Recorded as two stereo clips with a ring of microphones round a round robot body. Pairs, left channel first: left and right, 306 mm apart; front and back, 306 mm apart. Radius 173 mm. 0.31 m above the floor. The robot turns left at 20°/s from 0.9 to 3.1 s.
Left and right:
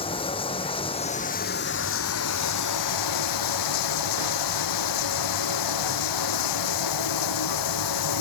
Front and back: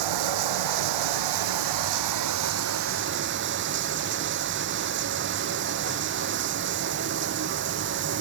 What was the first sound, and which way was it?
Running water, 165° left.